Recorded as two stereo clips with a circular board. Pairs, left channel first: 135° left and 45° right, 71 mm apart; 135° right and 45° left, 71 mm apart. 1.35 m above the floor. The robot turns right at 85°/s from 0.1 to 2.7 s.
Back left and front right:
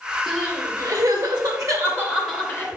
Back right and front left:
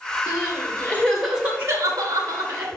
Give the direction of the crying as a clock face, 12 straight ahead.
4 o'clock.